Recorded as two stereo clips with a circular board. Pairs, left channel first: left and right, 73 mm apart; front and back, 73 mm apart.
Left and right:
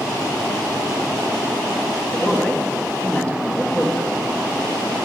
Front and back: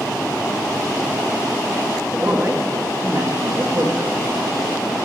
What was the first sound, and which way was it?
A man speaking, 155° left.